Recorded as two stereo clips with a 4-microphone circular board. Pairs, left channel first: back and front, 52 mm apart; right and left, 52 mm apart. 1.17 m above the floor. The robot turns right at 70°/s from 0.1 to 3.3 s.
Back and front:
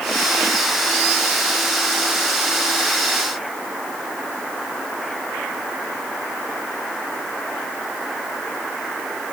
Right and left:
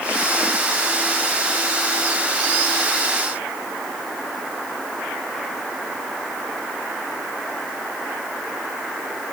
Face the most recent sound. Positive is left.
No sound to turn to.